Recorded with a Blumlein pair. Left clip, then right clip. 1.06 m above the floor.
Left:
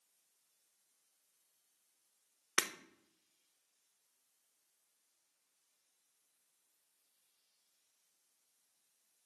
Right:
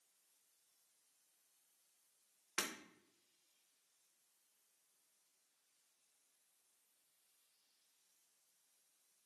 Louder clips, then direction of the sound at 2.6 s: Left 7 dB; 30° left.